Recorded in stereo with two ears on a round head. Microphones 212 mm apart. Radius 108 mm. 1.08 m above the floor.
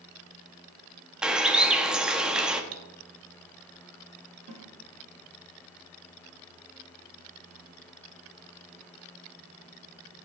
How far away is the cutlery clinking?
About 0.6 m.